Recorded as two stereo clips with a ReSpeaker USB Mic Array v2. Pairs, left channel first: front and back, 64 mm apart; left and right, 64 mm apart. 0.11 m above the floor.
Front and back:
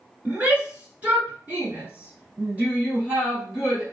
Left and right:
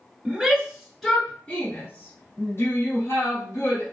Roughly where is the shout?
Behind right.